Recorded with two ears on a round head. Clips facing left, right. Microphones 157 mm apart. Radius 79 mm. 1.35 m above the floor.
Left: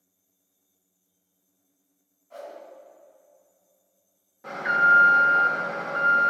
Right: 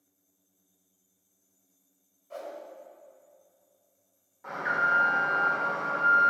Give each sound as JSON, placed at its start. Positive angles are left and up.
{"t": 2.3, "sound": "a whoosh", "side_deg": -65, "distance_m": 2.5}
{"t": 4.4, "sound": "an alarm", "side_deg": 40, "distance_m": 1.4}